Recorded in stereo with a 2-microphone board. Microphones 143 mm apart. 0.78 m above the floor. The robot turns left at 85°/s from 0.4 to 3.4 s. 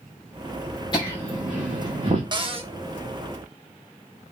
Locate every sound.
0.9 s laughter: 30° left (ahead or behind), 0.8 m; by 2.2 s 45° right (ahead or behind), 0.8 m
2.3 s a cupboard door: 50° right, 0.5 m; by 2.7 s 80° right, 0.5 m